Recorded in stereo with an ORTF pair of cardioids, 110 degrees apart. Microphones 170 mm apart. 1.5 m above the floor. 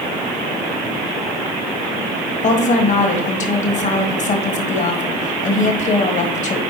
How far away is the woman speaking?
About 1.6 m.